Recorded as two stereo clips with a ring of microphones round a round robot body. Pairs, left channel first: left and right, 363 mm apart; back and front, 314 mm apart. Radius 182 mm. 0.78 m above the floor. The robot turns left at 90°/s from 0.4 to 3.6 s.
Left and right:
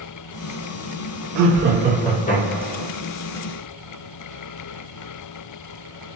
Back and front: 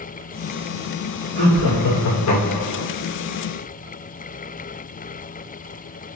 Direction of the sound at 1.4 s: 120° right.